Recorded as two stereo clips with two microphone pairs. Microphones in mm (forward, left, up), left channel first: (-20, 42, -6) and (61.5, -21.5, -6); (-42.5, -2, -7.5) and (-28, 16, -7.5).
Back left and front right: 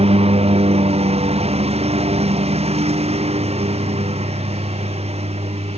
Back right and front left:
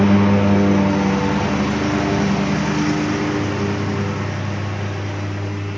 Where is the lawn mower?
50° right; by 5.8 s 45° right.